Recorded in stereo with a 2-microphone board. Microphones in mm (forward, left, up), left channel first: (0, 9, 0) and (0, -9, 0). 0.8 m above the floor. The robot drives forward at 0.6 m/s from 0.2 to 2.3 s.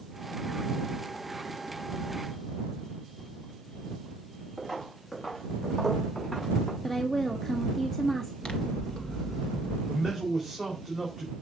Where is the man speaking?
5° left (ahead or behind), 4 m.